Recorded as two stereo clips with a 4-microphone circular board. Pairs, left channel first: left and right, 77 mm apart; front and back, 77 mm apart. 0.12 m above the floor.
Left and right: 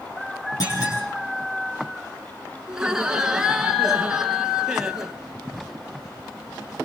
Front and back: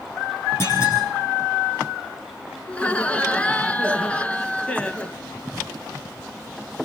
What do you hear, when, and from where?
0.6 s a clunk: 55° left, 9.5 m
2.7 s laughter: 30° right, 1.2 m